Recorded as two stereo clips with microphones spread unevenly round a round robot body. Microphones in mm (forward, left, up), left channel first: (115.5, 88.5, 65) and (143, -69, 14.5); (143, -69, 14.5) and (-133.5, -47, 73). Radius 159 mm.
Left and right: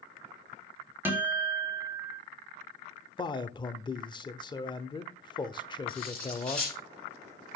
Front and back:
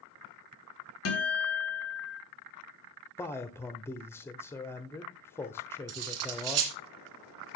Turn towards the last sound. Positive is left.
turn(degrees=-170)